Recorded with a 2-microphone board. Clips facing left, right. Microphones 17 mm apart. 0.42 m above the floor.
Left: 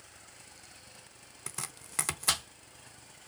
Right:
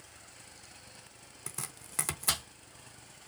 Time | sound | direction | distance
1.5 | chopping | 10° left (ahead or behind) | 0.6 m